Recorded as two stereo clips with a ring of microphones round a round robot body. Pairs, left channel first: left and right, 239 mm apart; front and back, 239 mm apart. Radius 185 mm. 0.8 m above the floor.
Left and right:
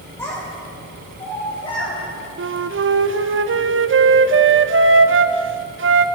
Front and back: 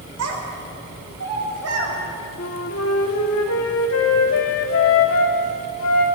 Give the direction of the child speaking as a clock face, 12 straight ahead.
6 o'clock.